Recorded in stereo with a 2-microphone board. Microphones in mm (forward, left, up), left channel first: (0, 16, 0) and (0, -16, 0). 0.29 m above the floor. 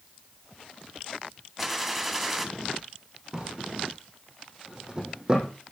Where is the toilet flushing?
I don't hear a toilet flushing.